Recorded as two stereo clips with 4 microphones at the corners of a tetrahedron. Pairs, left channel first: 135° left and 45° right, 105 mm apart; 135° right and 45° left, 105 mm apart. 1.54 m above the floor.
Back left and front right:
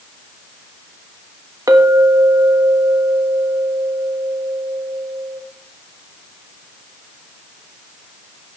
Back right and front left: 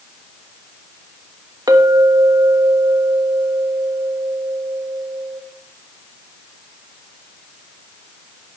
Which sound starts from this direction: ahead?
A clink, at 1.7 s.